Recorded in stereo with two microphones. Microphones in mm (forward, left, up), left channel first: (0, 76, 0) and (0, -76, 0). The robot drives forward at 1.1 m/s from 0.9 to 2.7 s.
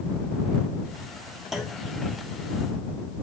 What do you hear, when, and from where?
1.5 s a clunk: centre (ahead or behind), 1.6 m